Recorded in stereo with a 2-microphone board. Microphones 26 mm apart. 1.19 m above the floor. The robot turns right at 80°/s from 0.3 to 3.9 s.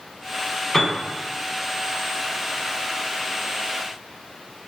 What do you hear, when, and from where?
0.7 s a piano: 20° left (ahead or behind), 1.2 m; by 1.0 s centre (ahead or behind), 1.2 m